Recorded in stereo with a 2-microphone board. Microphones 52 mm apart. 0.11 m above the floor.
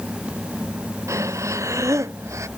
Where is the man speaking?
I don't hear a man speaking.